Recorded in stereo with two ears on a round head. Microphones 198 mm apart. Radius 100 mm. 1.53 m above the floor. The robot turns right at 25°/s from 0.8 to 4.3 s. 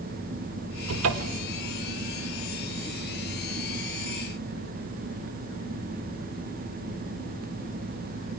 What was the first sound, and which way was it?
A cupboard door, 75° right (ahead or behind).